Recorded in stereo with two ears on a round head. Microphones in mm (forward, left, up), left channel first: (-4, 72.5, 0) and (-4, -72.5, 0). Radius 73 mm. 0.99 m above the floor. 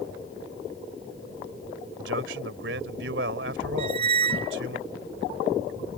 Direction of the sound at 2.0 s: 85° right.